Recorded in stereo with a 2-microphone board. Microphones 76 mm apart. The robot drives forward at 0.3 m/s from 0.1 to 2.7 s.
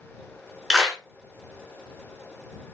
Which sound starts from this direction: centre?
A clap, at 0.7 s.